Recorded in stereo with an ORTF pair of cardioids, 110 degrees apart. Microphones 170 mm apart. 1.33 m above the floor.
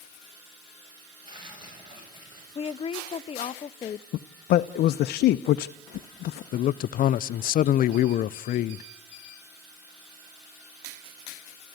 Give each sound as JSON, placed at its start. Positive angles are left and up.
{"t": 1.2, "sound": "tearing paper", "azimuth_deg": -30, "distance_m": 9.0}
{"t": 2.5, "sound": "a woman speaking", "azimuth_deg": 35, "distance_m": 0.7}
{"t": 4.1, "sound": "a man speaking", "azimuth_deg": 65, "distance_m": 0.7}
{"t": 6.5, "sound": "a man speaking", "azimuth_deg": 60, "distance_m": 0.6}